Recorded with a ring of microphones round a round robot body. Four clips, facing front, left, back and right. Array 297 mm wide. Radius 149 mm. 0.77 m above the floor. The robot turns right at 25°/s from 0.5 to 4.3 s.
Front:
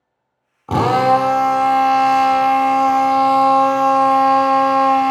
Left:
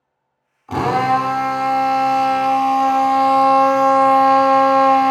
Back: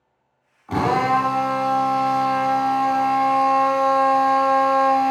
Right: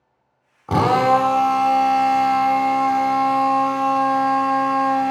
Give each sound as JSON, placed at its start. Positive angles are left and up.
{"t": 0.7, "sound": "a drill", "azimuth_deg": -35, "distance_m": 0.9}